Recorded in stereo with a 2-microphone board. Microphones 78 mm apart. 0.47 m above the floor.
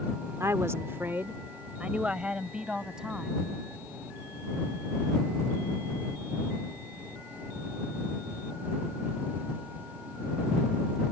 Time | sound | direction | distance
0.4 | a woman speaking | 40° right (ahead or behind) | ?